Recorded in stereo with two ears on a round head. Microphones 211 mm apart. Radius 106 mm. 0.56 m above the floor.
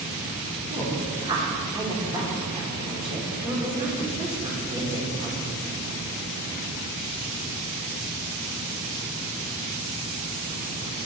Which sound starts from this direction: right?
A woman speaking, at 0.7 s.